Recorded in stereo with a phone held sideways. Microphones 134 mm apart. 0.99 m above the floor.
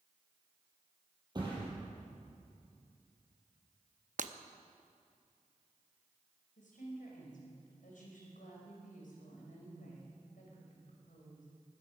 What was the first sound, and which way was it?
A thud, 30° right (ahead or behind).